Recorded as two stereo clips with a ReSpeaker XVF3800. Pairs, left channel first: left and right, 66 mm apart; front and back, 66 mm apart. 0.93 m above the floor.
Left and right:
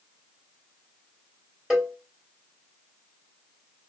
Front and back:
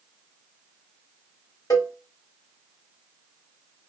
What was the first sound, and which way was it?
A cowbell, 10° right.